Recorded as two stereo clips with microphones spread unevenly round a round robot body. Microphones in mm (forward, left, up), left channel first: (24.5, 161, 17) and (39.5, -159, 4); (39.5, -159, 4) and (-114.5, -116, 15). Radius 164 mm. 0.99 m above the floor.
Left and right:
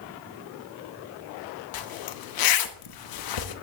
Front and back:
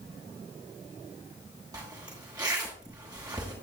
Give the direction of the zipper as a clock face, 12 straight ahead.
9 o'clock.